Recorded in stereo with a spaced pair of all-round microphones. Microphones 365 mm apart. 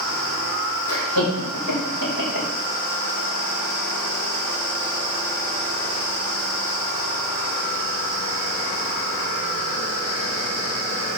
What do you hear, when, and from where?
0.9 s laughter: 65° left (ahead or behind), 5.5 m; by 2.5 s 85° left, 5.5 m